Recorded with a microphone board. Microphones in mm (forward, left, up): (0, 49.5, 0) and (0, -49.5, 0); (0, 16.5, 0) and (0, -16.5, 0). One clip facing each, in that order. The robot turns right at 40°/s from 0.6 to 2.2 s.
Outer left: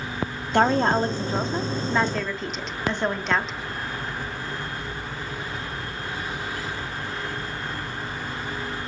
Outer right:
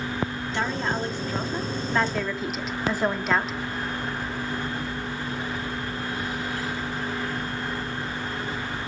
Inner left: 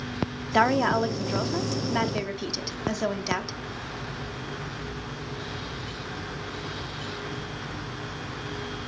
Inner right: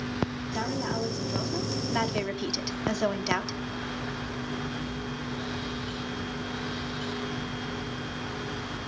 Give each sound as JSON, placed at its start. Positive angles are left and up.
{"t": 0.5, "sound": "a woman speaking", "azimuth_deg": 120, "distance_m": 1.2}